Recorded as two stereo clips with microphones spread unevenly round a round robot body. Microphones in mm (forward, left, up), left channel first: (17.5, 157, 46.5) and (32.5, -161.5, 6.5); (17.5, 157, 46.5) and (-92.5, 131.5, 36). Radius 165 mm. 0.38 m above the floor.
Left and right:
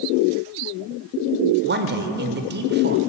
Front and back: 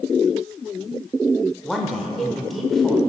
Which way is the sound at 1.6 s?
80° right.